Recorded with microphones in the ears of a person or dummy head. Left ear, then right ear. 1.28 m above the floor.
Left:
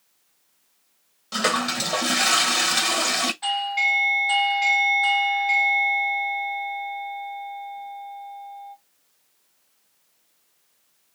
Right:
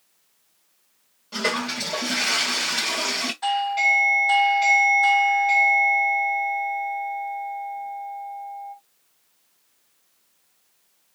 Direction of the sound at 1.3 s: 55° left (ahead or behind).